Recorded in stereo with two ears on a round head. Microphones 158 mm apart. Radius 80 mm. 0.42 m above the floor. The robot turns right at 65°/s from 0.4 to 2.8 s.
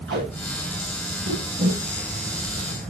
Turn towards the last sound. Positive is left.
turn(degrees=45)  # may be behind; listen again after turning